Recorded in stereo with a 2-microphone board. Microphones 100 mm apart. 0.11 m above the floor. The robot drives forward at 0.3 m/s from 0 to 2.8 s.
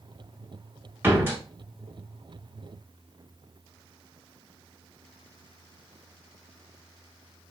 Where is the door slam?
20° right (ahead or behind), 1.0 m.